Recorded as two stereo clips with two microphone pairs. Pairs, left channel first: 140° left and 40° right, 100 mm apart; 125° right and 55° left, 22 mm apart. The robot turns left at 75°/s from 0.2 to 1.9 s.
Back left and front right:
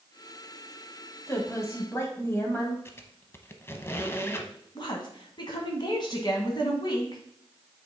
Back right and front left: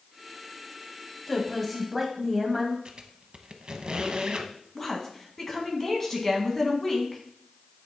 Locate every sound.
1.3 s a woman speaking: 170° left, 1.5 m; by 2.8 s 120° left, 1.5 m
2.9 s a squeak: 85° left, 0.7 m
4.8 s a woman speaking: 165° left, 1.7 m